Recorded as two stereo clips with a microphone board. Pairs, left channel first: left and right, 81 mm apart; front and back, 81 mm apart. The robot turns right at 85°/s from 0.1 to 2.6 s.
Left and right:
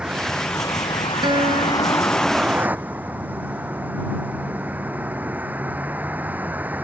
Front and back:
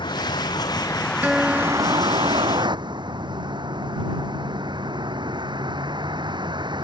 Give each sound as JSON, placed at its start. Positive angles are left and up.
{"t": 0.0, "sound": "a vehicle", "azimuth_deg": -10}
{"t": 1.2, "sound": "a guitar", "azimuth_deg": -110}